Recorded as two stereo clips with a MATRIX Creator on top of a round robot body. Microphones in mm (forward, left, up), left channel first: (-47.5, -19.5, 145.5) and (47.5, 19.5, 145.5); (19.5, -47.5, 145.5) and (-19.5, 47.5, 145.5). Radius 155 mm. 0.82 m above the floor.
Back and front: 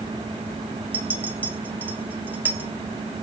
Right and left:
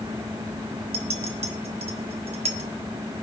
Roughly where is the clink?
Left.